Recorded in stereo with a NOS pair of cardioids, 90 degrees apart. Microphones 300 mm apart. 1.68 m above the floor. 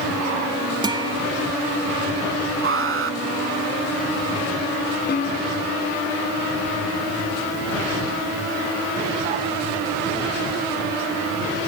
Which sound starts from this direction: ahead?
A guitar, at 0.8 s.